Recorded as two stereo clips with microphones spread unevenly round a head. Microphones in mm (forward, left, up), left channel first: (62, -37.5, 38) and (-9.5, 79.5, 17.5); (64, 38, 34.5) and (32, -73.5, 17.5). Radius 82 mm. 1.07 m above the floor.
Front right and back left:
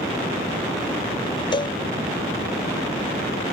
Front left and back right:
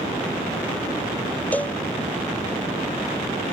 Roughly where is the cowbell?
Ahead.